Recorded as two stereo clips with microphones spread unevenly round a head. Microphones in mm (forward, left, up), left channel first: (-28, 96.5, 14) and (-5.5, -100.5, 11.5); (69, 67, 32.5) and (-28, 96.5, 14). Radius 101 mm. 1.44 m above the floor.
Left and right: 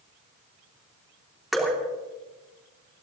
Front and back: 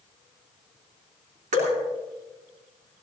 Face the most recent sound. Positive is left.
turn(degrees=-175)